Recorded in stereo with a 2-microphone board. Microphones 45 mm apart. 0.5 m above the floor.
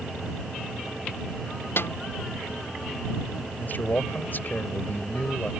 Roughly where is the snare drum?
Left.